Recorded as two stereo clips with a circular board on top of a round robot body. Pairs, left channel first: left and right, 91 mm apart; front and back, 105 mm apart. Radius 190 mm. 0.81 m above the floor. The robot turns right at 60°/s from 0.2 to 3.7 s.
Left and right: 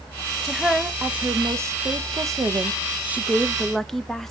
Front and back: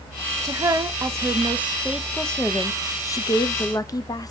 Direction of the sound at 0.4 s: 170° left.